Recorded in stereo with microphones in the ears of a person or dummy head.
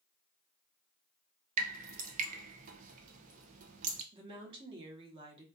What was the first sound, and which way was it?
Dripping, 45° right (ahead or behind).